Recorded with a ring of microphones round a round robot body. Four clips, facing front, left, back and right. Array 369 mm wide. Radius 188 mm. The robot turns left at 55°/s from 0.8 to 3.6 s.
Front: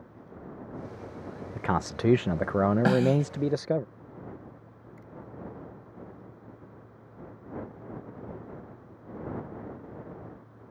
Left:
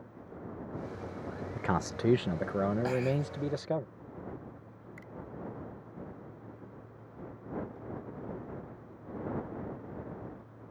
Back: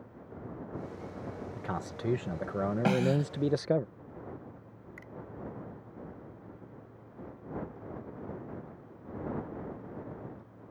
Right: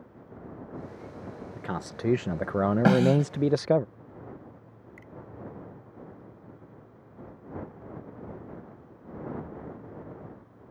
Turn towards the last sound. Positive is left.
turn(degrees=170)